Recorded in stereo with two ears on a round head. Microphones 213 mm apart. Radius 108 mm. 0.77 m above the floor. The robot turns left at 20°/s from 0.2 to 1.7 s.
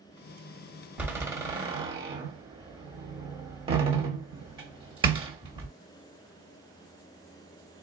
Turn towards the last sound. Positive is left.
turn(degrees=-20)  # may be behind; listen again after turning